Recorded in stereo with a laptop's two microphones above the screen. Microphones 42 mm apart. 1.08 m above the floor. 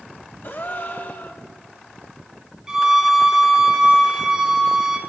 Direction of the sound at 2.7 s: 15° right (ahead or behind).